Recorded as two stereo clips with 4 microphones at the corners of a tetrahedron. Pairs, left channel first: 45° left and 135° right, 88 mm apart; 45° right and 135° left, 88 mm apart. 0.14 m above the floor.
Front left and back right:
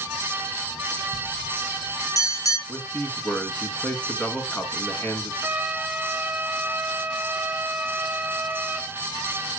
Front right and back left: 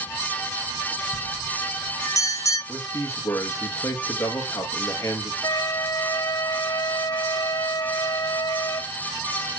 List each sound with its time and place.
1.1 s a bell: straight ahead, 3 m
2.7 s a man speaking: 20° right, 2.5 m
5.4 s a flute: 70° right, 0.5 m